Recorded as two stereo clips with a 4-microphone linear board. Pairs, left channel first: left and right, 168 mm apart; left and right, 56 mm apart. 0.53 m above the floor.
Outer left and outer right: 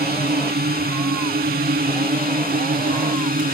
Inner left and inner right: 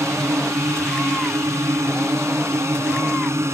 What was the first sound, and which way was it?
A drone, 65° right (ahead or behind).